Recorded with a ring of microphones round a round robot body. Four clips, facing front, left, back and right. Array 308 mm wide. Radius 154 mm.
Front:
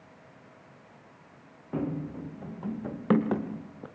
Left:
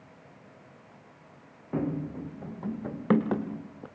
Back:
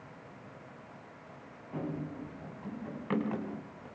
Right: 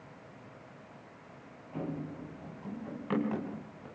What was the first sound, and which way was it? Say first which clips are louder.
Running footsteps: left 7 dB, front 5 dB; 60° left.